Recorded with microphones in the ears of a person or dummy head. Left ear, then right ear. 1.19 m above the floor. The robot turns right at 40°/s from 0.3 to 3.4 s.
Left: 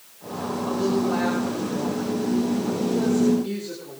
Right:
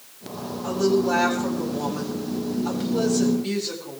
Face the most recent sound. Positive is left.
turn(degrees=-20)